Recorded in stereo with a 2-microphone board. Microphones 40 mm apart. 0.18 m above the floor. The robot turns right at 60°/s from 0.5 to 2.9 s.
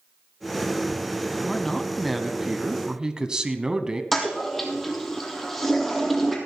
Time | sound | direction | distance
1.4 | a man speaking | 15° left (ahead or behind) | 1.2 m
4.1 | a toilet flushing | 5° left (ahead or behind) | 2.5 m